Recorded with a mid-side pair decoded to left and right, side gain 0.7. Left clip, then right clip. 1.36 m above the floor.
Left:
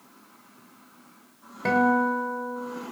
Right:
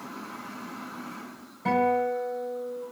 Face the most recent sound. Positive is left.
turn(degrees=55)